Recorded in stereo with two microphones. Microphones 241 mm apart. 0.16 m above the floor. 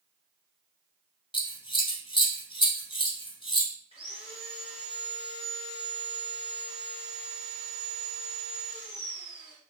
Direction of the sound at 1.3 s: 20° left (ahead or behind).